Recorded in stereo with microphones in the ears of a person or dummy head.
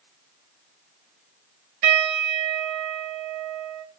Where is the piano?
70° right (ahead or behind), 2 m.